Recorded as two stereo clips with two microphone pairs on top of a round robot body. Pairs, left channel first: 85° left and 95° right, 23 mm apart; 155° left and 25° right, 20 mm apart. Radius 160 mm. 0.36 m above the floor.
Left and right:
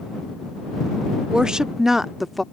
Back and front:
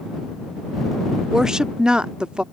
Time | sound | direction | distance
1.3 | a woman speaking | 85° right | ?